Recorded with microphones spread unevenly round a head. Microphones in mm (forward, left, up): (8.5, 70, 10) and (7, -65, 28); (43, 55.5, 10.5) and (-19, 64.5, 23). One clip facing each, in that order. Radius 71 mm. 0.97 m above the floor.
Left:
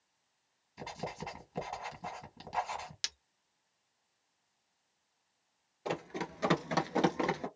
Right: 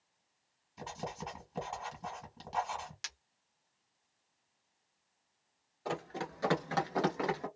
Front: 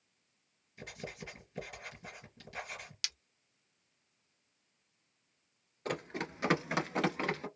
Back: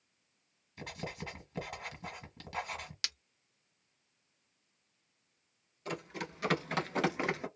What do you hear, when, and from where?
0.8 s writing: straight behind, 1.4 m
3.0 s breaking glass: 145° left, 0.7 m
5.8 s running footsteps: 10° left, 1.1 m; by 7.5 s 150° left, 1.0 m